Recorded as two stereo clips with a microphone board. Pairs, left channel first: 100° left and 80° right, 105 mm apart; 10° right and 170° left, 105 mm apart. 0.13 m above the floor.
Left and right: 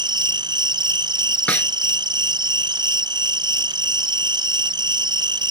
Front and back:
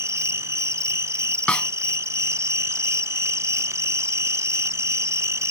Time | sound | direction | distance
0.0 | an insect | 125° right | ?
1.5 | a snare drum | 50° left | ?